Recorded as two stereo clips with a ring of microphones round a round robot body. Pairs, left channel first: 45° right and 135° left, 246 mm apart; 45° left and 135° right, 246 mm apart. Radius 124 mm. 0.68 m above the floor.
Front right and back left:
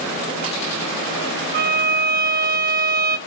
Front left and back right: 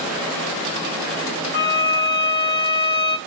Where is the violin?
85° left, 1.2 m.